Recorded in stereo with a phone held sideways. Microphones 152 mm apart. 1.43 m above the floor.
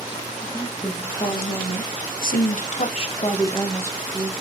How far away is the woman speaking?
About 2.0 m.